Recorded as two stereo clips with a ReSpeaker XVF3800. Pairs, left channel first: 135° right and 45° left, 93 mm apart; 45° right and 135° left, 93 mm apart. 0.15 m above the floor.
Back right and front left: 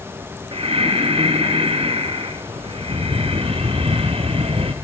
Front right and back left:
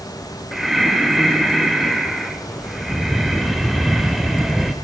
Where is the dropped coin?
I don't hear a dropped coin.